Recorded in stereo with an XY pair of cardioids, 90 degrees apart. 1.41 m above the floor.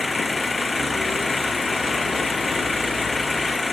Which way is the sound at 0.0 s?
25° left.